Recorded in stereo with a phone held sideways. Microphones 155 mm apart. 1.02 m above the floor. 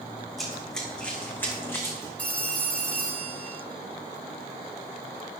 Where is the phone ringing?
10° left (ahead or behind), 1.3 m.